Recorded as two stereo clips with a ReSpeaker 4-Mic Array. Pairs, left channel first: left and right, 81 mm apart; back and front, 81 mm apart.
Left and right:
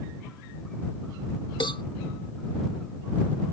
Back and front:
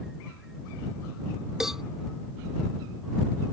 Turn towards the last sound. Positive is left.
turn(degrees=85)